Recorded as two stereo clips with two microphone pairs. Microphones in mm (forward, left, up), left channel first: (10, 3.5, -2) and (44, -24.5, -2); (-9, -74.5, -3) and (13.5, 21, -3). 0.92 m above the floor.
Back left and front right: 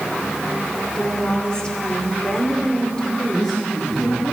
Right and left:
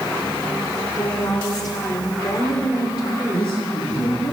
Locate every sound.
0.9 s a woman speaking: 150° right, 3 m
3.3 s a man speaking: 125° right, 7.5 m